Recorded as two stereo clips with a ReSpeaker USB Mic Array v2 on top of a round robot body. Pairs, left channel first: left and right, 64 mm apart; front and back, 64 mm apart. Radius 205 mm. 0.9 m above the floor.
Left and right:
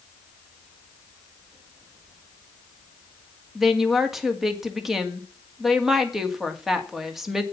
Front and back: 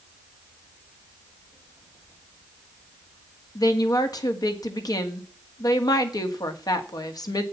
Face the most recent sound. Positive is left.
turn(degrees=-5)